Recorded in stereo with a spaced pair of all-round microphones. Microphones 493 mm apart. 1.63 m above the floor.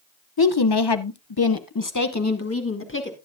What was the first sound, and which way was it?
A woman speaking, 45° left (ahead or behind).